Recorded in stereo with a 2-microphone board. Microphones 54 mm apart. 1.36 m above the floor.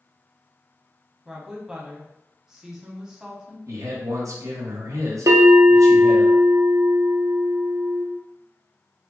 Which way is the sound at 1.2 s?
10° right (ahead or behind).